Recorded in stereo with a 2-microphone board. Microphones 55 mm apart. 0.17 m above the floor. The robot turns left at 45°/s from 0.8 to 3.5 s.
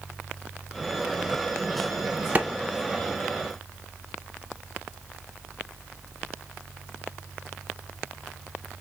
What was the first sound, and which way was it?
A clap, 30° right (ahead or behind).